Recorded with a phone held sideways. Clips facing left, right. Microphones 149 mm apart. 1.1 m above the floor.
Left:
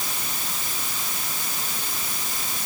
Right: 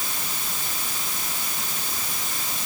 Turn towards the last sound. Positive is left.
No sound to turn to.